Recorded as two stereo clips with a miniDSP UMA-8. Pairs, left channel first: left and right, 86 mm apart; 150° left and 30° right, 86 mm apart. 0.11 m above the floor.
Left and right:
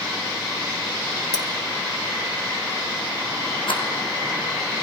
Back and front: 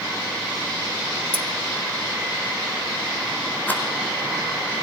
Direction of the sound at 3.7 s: 80° left.